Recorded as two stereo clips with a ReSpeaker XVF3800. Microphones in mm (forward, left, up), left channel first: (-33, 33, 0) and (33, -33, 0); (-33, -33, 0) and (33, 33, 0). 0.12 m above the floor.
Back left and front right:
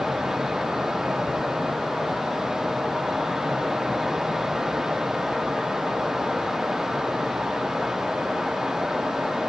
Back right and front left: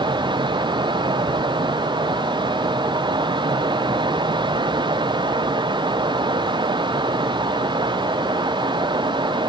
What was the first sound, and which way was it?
Only background noise.